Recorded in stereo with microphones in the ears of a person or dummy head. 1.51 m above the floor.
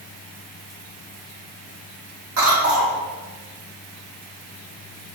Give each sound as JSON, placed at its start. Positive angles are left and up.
{"t": 2.4, "sound": "a cough", "side_deg": -65, "distance_m": 1.4}